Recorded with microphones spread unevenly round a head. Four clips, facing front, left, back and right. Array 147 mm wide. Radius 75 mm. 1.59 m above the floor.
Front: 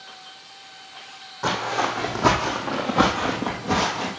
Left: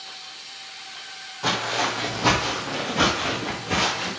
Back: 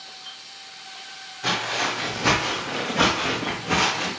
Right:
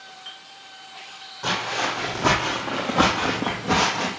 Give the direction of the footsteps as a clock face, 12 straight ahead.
12 o'clock.